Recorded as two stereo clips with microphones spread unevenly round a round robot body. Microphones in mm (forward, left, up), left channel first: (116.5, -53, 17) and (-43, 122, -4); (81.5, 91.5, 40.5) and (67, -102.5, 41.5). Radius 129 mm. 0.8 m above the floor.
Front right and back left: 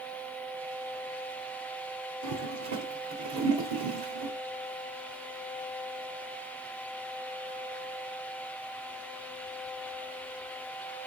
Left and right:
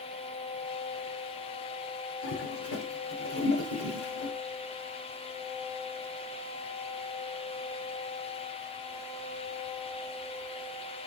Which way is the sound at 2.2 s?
125° left.